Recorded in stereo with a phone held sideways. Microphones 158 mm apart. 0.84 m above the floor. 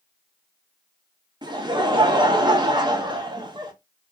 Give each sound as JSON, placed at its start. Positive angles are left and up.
{"t": 1.4, "sound": "laughter", "side_deg": -30, "distance_m": 0.7}